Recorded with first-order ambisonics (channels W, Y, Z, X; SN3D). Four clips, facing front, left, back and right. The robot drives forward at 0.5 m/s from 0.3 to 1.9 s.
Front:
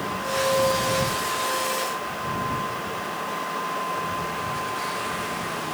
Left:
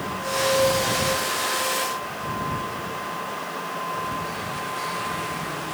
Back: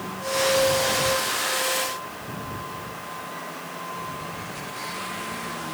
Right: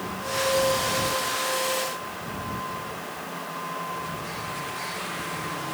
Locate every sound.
Only background noise.